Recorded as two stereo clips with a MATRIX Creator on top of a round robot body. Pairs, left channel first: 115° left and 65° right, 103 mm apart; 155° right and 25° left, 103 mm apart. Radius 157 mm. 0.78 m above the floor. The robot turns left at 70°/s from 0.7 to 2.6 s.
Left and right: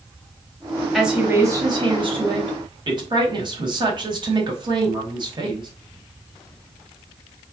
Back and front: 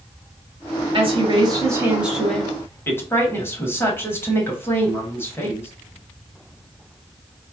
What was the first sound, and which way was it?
A woman speaking, 20° left.